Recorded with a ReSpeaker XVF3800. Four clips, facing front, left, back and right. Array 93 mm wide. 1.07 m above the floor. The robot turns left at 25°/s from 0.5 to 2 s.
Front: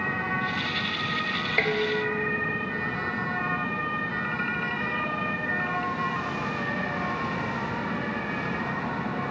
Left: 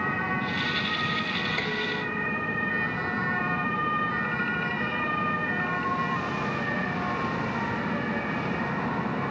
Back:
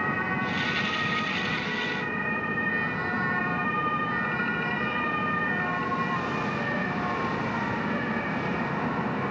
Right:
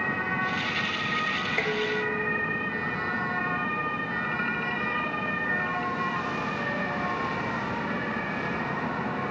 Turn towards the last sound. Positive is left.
turn(degrees=-30)